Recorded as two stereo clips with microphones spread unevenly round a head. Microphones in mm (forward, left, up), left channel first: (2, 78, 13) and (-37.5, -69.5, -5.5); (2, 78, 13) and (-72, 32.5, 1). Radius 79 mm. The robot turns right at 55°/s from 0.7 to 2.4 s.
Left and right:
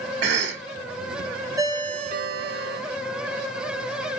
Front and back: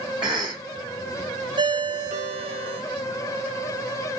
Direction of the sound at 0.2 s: 70° right.